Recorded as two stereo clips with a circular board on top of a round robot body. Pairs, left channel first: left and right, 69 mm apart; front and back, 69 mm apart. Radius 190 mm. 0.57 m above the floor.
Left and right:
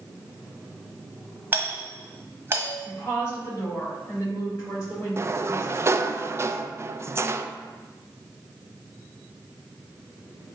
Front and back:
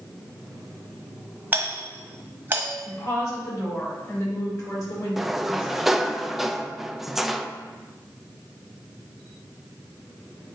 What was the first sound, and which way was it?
A doorbell, 130° right.